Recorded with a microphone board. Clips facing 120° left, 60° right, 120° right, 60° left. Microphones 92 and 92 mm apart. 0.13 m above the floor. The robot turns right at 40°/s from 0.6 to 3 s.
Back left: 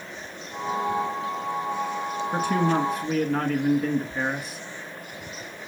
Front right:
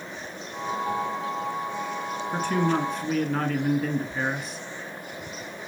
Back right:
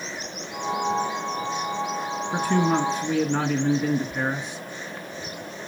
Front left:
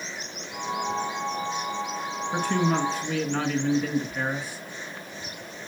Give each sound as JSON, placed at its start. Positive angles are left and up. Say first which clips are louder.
{"t": 2.3, "sound": "a man speaking", "louder": "back left 1 dB, back right 3 dB", "azimuth_deg": 175, "distance_m": 1.1}